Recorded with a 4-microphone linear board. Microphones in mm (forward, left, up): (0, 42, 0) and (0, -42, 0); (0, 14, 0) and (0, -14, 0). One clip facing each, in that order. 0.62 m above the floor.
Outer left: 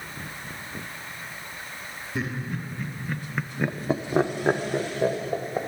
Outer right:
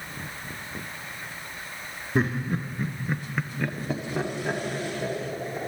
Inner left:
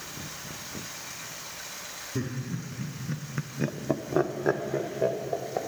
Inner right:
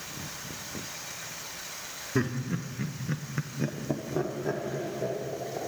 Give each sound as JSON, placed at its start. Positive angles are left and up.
{"t": 2.1, "sound": "laughter", "side_deg": -60, "distance_m": 1.2}